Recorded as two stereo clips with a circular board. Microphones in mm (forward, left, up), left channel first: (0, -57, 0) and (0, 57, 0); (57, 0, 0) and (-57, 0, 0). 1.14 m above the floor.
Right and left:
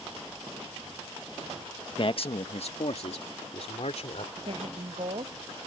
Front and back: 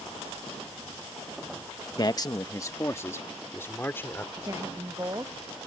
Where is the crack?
I don't hear a crack.